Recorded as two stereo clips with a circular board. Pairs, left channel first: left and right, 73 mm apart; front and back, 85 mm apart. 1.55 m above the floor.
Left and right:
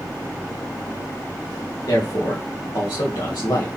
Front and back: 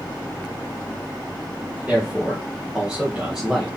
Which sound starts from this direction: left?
A man speaking, at 1.9 s.